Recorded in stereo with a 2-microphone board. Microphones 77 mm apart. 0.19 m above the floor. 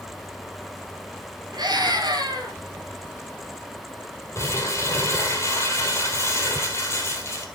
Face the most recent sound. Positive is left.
turn(degrees=35)  # may be behind; listen again after turning